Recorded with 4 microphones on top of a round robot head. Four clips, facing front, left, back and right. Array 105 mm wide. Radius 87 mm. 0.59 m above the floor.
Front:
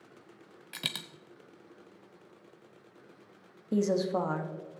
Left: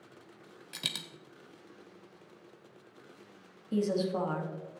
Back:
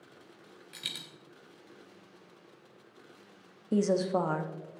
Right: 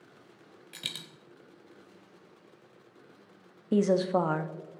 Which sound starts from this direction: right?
A woman speaking, at 3.7 s.